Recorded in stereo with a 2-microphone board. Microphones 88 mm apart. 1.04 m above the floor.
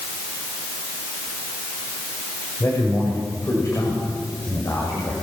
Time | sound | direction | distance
2.6 | a man speaking | 30° left (ahead or behind) | 5.5 m